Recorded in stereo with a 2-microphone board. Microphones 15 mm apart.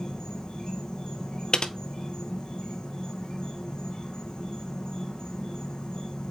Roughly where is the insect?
Left.